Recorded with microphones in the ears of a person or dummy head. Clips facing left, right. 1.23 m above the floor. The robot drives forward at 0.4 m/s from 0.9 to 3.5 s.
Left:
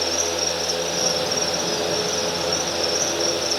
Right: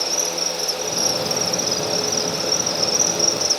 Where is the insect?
40° right (ahead or behind), 1.4 m; by 3.6 s 60° right (ahead or behind), 1.0 m.